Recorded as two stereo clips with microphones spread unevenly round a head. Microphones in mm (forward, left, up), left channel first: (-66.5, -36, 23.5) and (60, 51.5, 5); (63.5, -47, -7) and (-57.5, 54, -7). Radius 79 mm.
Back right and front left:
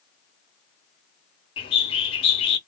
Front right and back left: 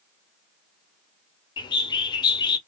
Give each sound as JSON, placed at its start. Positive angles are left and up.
{"t": 1.6, "sound": "a bird", "azimuth_deg": -100, "distance_m": 0.8}